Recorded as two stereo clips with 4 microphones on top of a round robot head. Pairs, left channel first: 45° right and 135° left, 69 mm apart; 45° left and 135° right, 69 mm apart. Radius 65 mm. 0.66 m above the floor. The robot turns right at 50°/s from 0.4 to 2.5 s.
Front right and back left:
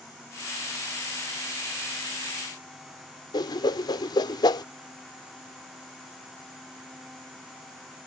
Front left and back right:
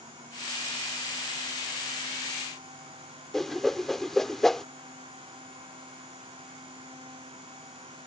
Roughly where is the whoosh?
Ahead right.